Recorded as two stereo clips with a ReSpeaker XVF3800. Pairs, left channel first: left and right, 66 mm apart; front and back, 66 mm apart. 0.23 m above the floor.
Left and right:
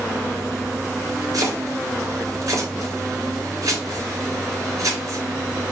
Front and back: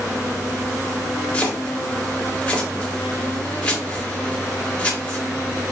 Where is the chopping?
65° right, 3 m.